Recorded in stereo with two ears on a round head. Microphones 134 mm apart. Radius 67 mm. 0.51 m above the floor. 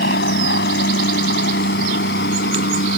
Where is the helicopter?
70° left (ahead or behind).